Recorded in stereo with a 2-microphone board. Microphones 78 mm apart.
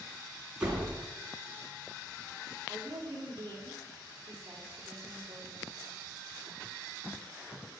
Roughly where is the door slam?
Centre.